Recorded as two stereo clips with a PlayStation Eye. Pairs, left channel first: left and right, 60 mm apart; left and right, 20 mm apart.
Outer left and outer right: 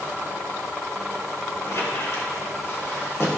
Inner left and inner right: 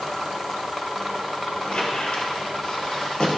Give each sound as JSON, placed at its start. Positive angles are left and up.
{"t": 1.6, "sound": "a squeak", "side_deg": 55, "distance_m": 2.5}